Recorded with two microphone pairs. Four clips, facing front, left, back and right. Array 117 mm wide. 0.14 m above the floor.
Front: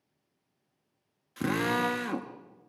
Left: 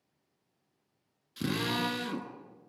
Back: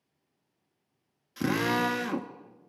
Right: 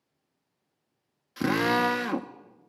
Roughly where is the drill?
Right.